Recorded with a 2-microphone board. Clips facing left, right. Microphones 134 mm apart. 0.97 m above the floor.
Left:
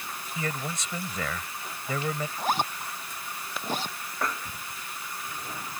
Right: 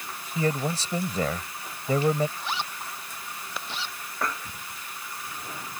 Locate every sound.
0.3 s a man speaking: 35° right (ahead or behind)
2.4 s a zipper: 45° left (ahead or behind)